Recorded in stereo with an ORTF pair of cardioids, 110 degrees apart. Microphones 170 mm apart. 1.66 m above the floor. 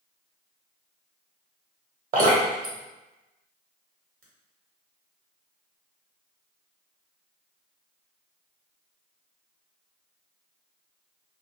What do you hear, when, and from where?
2.1 s dripping: 50° right, 1.2 m